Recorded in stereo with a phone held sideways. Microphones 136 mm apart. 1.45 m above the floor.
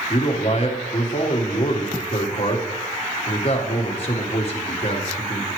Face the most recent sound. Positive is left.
turn(degrees=45)  # may be behind; listen again after turning